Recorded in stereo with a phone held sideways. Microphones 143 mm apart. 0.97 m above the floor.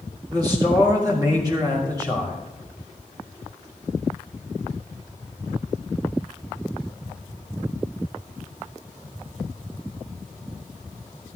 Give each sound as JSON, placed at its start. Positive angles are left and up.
{"t": 0.3, "sound": "a man speaking", "side_deg": -30, "distance_m": 2.5}